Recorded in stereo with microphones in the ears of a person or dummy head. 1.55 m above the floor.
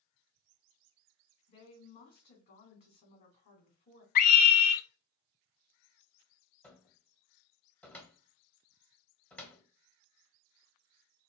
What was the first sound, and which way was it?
A woman speaking, 55° left (ahead or behind).